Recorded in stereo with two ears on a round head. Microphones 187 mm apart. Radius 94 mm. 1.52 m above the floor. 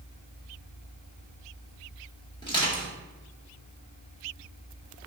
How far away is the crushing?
About 1.2 m.